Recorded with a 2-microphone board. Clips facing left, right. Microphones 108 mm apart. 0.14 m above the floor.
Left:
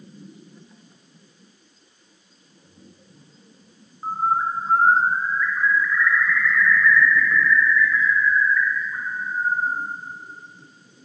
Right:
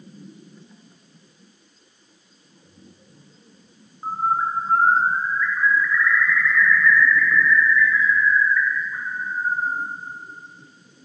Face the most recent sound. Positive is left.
turn(degrees=5)  # may be behind; listen again after turning